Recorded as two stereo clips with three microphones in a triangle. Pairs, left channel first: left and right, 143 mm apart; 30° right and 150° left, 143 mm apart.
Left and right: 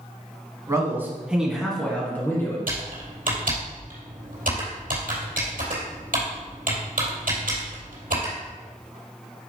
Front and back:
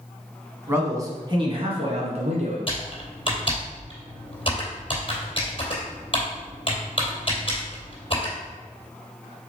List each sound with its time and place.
0.7 s a man speaking: 145° right, 1.9 m; by 2.6 s 160° left, 2.5 m
2.7 s typing on a keyboard: 85° right, 3 m